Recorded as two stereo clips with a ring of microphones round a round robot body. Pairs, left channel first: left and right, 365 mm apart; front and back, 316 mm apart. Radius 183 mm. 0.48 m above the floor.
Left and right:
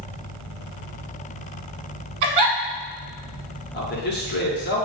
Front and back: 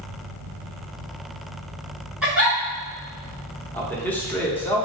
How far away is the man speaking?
About 0.8 m.